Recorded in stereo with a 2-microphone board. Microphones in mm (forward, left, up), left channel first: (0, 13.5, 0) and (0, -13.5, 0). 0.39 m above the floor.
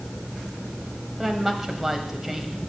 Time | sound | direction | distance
1.2 | a woman speaking | 5° right (ahead or behind) | 1.8 m